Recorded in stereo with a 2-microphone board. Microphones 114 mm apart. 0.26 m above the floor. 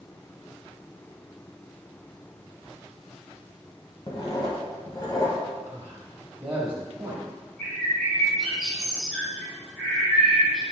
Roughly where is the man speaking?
Centre.